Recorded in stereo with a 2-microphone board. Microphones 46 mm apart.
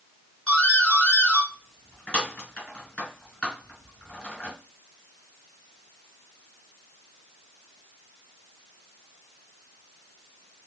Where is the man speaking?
No man speaking in this recording.